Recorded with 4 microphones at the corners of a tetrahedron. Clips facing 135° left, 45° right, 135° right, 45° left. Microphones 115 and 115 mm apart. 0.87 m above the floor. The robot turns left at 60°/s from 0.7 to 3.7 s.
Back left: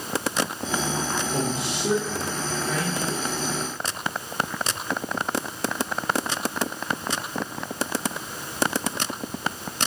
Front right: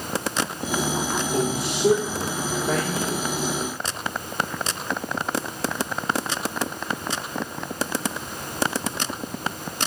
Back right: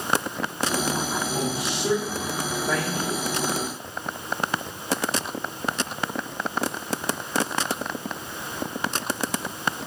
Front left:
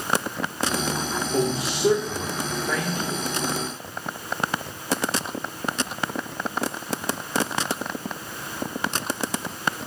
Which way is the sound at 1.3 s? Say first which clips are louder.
Front right 3 dB, front left 3 dB; 5° left.